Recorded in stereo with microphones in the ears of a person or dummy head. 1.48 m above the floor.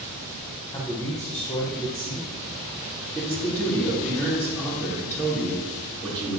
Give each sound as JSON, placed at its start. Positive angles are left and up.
{"t": 0.7, "sound": "a man speaking", "side_deg": 15, "distance_m": 1.1}
{"t": 3.1, "sound": "a man speaking", "side_deg": 10, "distance_m": 3.0}